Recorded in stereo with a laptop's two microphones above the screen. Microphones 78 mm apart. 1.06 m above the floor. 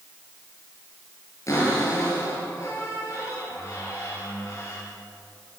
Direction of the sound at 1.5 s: 40° left (ahead or behind).